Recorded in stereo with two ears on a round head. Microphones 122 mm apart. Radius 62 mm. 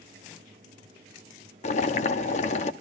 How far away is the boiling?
About 1.1 m.